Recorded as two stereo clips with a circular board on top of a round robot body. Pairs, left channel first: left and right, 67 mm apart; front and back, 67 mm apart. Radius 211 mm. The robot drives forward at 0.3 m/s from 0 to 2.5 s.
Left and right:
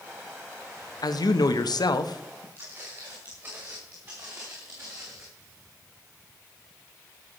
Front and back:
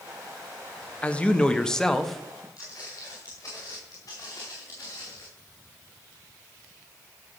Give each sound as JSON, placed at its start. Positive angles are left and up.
{"t": 1.0, "sound": "a man speaking", "azimuth_deg": 70, "distance_m": 1.3}
{"t": 2.6, "sound": "footsteps", "azimuth_deg": -35, "distance_m": 6.5}